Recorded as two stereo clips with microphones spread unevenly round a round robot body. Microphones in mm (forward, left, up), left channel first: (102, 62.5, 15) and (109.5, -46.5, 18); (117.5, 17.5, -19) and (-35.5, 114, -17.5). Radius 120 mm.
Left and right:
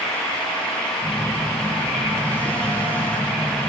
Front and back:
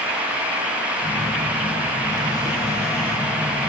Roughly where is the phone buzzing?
Ahead left.